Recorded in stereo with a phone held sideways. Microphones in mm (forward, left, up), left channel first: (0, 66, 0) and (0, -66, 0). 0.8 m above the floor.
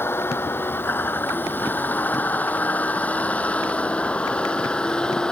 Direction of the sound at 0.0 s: 15° left (ahead or behind).